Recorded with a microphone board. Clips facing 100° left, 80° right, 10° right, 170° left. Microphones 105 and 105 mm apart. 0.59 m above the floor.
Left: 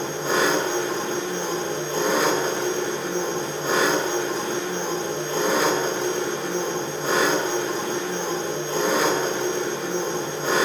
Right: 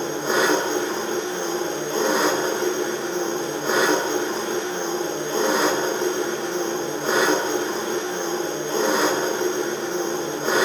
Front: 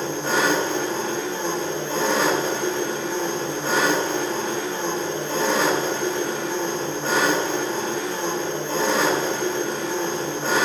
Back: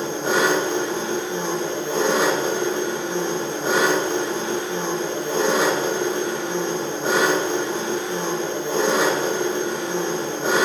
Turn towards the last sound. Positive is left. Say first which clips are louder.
# right 1 dB, back 2 dB
turn(degrees=-125)